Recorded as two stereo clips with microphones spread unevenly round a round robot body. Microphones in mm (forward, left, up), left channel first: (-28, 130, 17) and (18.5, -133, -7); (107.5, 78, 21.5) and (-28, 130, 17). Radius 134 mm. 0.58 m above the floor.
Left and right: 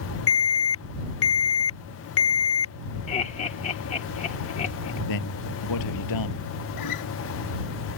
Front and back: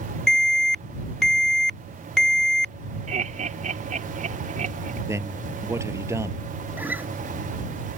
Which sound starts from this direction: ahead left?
An alarm, at 0.3 s.